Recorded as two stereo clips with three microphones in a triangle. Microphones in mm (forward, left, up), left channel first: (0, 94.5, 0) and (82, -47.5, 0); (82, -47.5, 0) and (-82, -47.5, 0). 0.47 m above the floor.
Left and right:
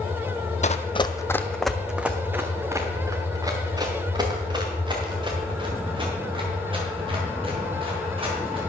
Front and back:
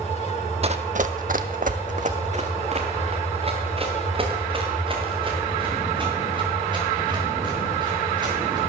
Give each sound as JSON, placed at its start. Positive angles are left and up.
{"t": 0.6, "sound": "running footsteps", "azimuth_deg": 145, "distance_m": 0.7}